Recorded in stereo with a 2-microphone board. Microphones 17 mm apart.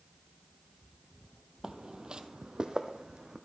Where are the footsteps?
30° right (ahead or behind), 0.6 m; by 3.4 s 40° right (ahead or behind), 1.1 m.